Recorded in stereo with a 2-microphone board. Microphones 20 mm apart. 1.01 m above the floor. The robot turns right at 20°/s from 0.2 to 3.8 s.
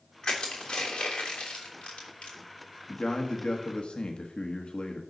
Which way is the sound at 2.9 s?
45° left (ahead or behind).